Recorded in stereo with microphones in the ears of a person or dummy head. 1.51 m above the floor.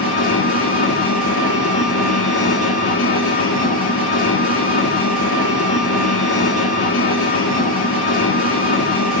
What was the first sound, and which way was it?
An engine running, 40° left (ahead or behind).